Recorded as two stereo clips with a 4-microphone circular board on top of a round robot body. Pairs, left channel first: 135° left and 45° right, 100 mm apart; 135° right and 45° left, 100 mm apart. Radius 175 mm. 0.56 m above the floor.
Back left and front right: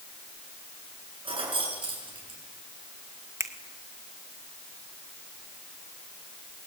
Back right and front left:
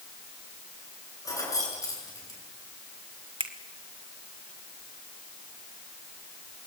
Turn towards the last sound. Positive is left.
turn(degrees=15)